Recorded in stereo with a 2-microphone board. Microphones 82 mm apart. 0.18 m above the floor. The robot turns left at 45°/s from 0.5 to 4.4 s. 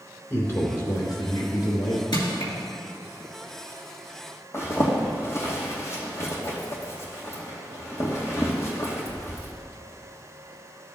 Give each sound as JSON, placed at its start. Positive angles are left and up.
{"t": 0.3, "sound": "a man speaking", "azimuth_deg": 150, "distance_m": 3.0}
{"t": 2.1, "sound": "crushing", "side_deg": 65, "distance_m": 2.5}
{"t": 4.5, "sound": "a zipper", "side_deg": 30, "distance_m": 2.0}